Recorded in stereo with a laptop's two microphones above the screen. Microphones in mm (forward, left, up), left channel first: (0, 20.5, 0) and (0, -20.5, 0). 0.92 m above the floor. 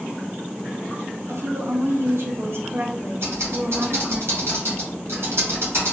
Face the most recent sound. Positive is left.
turn(degrees=-75)  # may be behind; listen again after turning